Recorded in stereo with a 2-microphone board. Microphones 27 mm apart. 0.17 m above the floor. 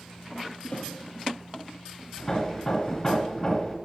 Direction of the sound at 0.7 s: 55° left (ahead or behind).